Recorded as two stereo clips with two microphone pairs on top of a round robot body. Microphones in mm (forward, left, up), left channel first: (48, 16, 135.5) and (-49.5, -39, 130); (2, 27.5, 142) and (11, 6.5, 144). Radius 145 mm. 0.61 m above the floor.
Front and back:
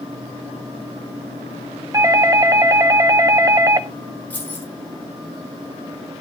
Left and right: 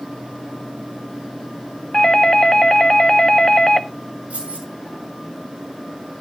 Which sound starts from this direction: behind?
A doorbell, at 1.9 s.